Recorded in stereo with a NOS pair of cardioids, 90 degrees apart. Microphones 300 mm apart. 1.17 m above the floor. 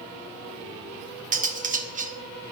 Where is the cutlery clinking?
25° right, 0.7 m.